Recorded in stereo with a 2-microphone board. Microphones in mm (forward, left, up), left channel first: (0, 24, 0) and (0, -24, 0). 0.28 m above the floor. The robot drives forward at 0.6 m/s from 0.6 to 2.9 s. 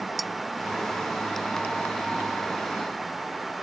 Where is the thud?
I don't hear a thud.